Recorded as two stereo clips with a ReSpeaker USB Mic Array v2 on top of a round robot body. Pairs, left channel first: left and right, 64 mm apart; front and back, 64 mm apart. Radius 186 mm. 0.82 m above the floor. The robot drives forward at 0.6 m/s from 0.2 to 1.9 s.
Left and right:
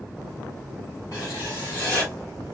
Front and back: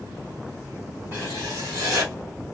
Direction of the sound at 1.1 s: 120° left.